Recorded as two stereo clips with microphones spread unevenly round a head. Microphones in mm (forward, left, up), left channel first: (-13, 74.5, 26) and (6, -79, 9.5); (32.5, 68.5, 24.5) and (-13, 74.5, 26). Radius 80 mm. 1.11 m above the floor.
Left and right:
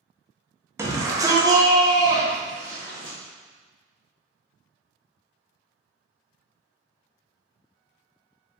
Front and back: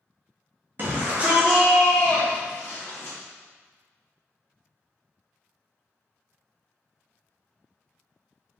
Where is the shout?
145° right, 0.9 m; by 3.2 s 15° right, 1.0 m.